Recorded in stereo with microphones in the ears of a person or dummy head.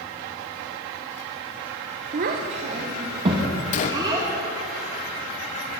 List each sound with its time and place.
2.1 s a child speaking: 30° right (ahead or behind), 0.7 m; by 4.3 s 20° right (ahead or behind), 2.5 m
3.7 s a gunshot: 45° left (ahead or behind), 0.7 m